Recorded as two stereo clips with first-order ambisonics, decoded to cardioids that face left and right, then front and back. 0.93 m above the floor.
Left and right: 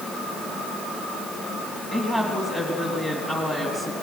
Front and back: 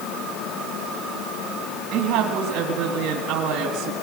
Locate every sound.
1.9 s a woman speaking: 170° left, 1.9 m